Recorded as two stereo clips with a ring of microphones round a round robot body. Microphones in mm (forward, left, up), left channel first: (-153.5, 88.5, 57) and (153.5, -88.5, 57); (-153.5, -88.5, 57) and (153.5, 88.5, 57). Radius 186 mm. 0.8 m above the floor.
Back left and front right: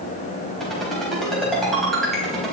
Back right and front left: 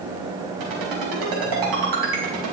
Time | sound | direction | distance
0.6 | a ringtone | 60° left | 4 m